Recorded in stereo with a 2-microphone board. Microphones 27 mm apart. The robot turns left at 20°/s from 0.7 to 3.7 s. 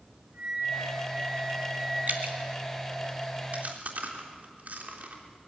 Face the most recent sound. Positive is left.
turn(degrees=-60)  # may be behind; listen again after turning